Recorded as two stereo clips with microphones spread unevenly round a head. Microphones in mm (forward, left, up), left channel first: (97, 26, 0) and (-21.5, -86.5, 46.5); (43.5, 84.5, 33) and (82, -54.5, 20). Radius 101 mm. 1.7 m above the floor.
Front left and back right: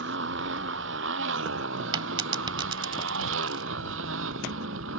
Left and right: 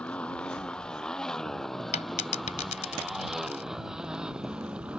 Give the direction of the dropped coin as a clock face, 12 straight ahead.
7 o'clock.